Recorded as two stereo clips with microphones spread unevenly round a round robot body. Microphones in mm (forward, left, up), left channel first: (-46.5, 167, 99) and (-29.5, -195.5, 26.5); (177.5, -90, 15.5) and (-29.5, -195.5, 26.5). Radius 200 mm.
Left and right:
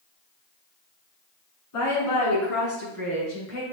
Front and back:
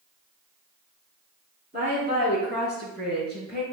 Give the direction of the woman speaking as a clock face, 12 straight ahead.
7 o'clock.